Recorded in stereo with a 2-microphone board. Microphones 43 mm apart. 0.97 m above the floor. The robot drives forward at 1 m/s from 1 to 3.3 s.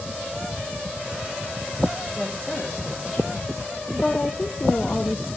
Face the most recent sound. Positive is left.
turn(degrees=30)  # may be behind; listen again after turning